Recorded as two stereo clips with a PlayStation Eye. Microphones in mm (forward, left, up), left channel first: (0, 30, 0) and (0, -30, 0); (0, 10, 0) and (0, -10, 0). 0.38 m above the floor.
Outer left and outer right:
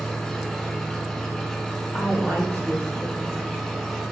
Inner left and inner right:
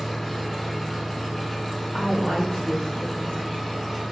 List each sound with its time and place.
0.0 s an engine running: 10° left (ahead or behind), 1.0 m
1.9 s a woman speaking: 40° left (ahead or behind), 2 m